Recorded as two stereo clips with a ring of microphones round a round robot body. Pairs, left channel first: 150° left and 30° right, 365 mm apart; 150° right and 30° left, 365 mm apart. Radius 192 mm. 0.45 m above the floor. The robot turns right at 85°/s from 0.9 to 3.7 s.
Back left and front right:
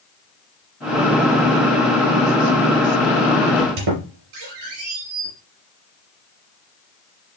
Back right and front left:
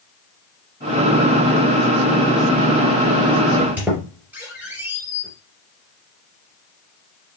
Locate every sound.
3.5 s a squeak: 70° right, 3.5 m; by 5.3 s 55° right, 3.5 m